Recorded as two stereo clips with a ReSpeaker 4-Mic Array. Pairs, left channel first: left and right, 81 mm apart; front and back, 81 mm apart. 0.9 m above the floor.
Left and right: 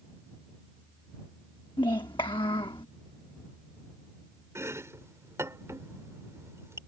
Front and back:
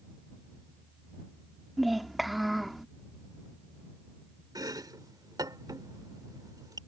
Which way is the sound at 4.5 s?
145° right.